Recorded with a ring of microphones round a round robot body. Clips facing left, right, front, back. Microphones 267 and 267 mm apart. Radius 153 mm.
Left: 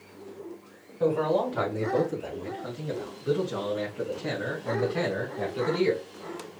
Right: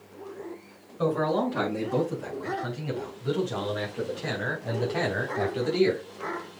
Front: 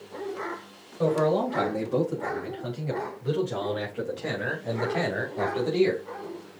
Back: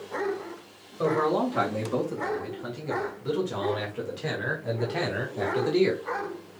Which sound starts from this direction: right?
A man speaking, at 1.0 s.